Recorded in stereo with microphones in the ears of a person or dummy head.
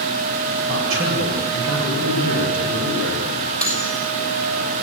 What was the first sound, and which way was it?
A man speaking, 65° right (ahead or behind).